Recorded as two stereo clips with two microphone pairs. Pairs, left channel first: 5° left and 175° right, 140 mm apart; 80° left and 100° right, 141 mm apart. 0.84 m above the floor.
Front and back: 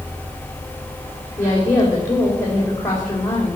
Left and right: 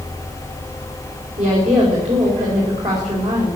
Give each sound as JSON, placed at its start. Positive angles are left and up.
{"t": 1.4, "sound": "a woman speaking", "azimuth_deg": -70, "distance_m": 4.5}